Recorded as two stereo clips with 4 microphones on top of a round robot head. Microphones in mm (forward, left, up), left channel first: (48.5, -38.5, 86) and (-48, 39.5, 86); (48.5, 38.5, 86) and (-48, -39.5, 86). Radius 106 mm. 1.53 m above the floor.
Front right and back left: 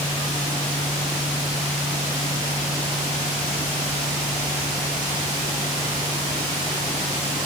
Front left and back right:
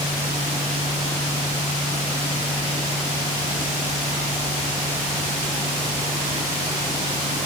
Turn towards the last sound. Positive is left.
No sound to turn to.